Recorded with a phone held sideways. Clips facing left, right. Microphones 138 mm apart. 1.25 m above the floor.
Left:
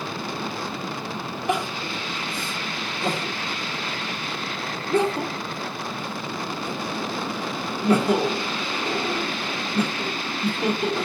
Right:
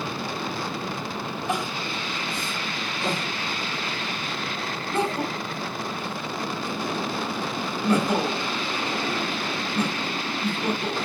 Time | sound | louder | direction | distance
1.5 | crying | left 4 dB | 65° left (ahead or behind) | 1.3 m